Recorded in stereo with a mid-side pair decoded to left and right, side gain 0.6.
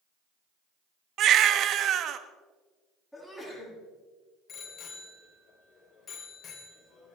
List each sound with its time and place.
1.2 s a baby crying: 55° right, 1.3 m
3.1 s a sneeze: 5° left, 8.5 m
4.5 s a bicycle bell: 45° left, 3.5 m